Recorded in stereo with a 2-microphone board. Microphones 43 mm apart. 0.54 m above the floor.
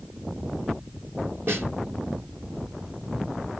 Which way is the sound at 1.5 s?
60° right (ahead or behind).